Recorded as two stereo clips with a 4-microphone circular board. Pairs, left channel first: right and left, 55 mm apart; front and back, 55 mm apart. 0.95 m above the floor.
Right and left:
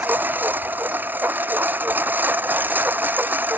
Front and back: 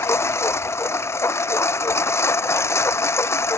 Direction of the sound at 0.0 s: 35° left.